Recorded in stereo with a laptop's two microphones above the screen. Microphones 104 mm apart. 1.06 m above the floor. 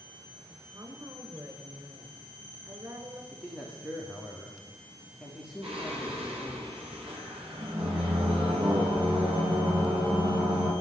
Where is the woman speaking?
30° right (ahead or behind), 5.5 m.